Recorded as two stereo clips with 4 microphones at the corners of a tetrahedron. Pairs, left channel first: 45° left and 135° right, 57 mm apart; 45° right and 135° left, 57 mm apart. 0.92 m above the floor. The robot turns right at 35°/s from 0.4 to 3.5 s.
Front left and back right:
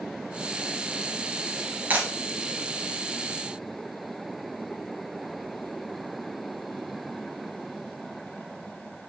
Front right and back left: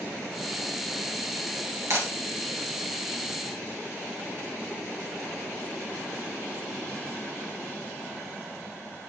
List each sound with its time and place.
1.9 s breaking glass: 165° left, 3 m; by 2.1 s 170° left, 3 m